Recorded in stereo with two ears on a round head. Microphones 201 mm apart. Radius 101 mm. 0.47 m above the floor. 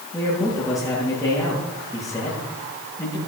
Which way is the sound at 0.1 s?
15° left (ahead or behind).